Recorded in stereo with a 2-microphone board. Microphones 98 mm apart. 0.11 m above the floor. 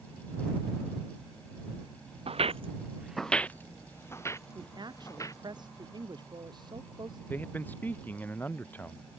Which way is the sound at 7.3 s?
20° left (ahead or behind).